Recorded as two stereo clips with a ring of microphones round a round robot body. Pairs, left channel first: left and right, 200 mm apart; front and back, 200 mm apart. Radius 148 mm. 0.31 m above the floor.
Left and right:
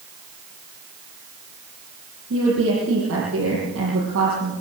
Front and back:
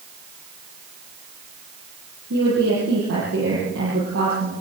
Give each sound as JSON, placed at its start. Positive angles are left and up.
{"t": 2.3, "sound": "a woman speaking", "azimuth_deg": -135, "distance_m": 8.5}